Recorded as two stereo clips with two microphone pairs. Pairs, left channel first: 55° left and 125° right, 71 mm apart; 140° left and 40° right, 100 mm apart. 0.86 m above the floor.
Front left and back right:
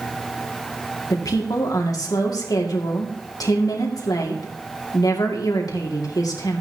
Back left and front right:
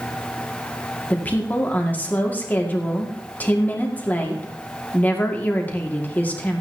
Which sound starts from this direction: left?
A woman speaking, at 1.1 s.